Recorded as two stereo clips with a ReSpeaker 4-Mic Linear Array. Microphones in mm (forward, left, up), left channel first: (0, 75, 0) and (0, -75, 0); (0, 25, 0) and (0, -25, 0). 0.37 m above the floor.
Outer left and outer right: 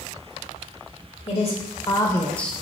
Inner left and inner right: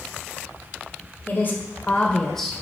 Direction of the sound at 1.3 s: 50° left (ahead or behind).